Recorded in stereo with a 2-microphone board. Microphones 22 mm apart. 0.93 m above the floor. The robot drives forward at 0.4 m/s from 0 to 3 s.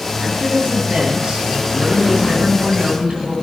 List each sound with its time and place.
0.2 s a woman speaking: 45° right (ahead or behind), 6.5 m; by 3.3 s 55° right (ahead or behind), 6 m